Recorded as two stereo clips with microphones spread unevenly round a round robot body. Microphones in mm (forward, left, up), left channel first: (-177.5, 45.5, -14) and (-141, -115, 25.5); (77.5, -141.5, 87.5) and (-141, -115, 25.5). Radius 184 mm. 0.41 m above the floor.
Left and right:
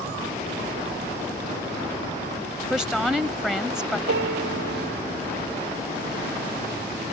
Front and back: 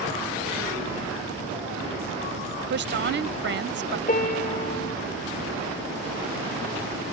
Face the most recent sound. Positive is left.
turn(degrees=-60)